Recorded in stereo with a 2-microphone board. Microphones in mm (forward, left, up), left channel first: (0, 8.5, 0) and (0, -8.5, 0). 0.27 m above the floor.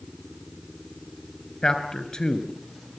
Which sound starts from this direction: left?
A man speaking, at 1.6 s.